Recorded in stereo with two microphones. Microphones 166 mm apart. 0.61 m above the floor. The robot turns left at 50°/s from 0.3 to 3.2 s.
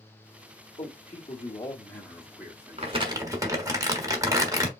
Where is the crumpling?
40° right (ahead or behind), 1.1 m; by 4.7 s 20° right (ahead or behind), 1.1 m.